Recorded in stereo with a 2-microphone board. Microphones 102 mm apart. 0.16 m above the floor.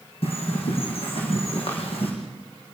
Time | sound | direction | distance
0.2 | a bird | 70° left (ahead or behind) | 5.5 m